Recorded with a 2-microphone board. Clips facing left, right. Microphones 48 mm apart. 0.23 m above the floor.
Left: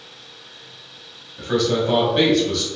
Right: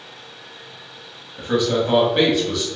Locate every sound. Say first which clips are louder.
1.4 s a man speaking: even; 15° right (ahead or behind), 1.0 m